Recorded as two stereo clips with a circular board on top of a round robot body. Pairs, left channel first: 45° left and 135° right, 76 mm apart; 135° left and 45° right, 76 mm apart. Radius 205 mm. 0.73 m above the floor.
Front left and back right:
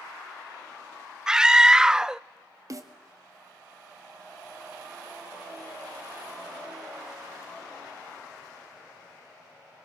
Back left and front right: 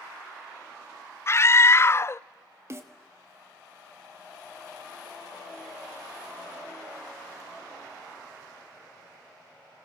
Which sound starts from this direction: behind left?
A scream, at 1.3 s.